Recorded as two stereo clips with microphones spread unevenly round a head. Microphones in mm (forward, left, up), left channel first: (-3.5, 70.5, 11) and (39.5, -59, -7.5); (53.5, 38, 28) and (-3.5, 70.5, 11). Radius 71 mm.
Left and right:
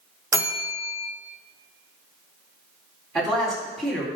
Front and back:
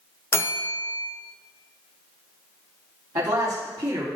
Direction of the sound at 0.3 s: Straight ahead.